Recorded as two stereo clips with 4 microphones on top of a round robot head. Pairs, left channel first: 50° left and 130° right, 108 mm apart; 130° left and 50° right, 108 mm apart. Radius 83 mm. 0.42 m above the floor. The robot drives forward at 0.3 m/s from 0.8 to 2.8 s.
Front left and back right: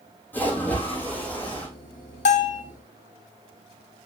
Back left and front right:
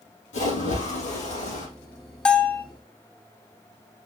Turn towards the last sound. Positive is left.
turn(degrees=55)